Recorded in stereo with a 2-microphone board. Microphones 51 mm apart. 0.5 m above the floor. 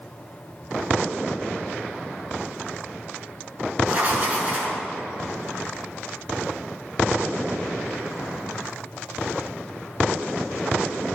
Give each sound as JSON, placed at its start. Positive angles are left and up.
{"t": 3.9, "sound": "writing", "side_deg": -30, "distance_m": 6.0}